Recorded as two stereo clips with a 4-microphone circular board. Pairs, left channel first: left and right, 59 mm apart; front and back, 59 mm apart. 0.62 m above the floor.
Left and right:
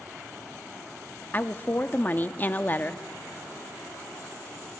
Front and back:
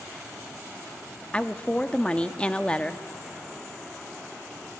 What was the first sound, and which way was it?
A woman speaking, 60° left.